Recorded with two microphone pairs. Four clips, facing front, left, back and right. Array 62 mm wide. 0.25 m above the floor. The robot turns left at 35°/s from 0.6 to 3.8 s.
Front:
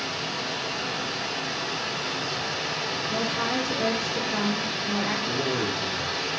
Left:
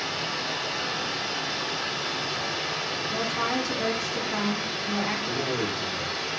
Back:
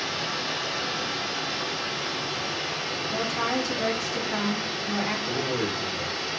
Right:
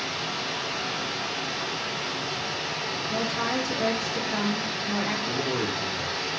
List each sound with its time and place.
0.0 s running water: 110° left, 1.3 m; by 6.4 s 5° right, 1.3 m
3.1 s a woman speaking: 135° right, 1.4 m; by 5.2 s 160° right, 1.4 m
5.3 s a man speaking: 80° right, 1.1 m